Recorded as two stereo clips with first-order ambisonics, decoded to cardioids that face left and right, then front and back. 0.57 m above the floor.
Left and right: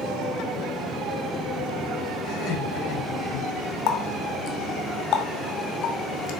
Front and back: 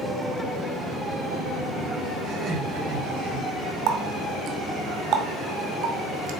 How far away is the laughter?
About 4 m.